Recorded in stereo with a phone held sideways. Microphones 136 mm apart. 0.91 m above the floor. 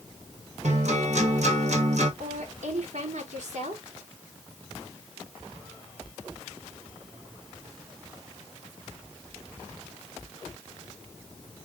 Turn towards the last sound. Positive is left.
turn(degrees=-70)  # may be behind; listen again after turning